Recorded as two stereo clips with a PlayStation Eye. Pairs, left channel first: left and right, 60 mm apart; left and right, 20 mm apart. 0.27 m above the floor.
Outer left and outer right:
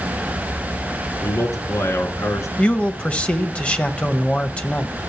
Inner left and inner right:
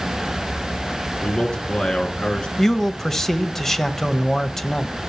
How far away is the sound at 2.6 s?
About 0.9 m.